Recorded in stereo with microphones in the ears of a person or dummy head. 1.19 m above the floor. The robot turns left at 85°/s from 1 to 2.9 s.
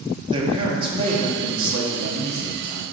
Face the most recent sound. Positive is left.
turn(degrees=170)